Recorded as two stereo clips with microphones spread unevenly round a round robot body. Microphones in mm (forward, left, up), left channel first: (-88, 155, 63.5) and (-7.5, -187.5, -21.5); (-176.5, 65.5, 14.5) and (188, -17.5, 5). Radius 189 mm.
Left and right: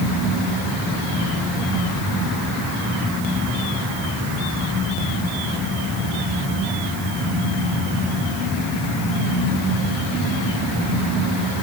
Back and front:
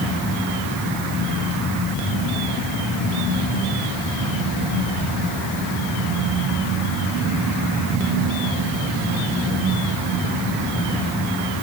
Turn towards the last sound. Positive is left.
No sound to turn to.